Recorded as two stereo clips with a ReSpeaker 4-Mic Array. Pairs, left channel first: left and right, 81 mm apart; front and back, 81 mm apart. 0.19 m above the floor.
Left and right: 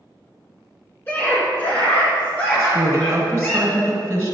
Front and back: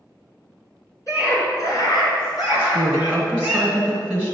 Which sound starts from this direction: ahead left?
A scream, at 1.1 s.